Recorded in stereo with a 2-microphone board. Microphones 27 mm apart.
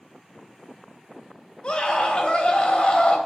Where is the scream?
35° left (ahead or behind), 3 m.